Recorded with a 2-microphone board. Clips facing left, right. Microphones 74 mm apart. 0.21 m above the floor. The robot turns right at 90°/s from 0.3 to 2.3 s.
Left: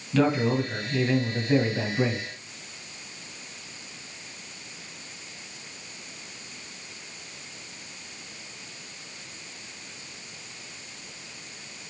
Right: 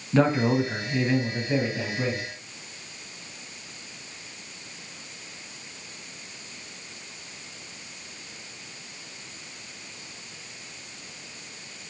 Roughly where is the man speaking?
Right.